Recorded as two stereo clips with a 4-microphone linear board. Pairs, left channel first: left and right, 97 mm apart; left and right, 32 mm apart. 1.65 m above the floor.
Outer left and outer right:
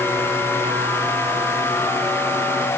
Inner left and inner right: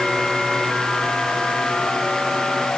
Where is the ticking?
I don't hear ticking.